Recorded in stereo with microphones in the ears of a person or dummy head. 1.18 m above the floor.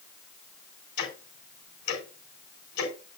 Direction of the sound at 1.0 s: 65° left (ahead or behind).